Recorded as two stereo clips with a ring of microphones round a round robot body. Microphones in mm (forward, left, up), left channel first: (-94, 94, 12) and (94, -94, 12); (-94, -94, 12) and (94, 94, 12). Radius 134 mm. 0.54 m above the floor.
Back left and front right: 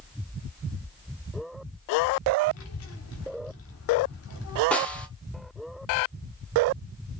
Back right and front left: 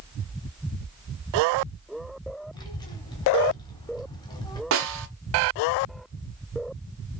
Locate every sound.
2.5 s a child speaking: 150° left, 1.1 m
4.7 s a snare drum: 50° left, 0.9 m